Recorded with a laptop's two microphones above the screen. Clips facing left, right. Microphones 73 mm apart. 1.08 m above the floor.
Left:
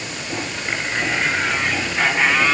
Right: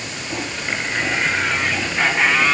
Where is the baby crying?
I don't hear a baby crying.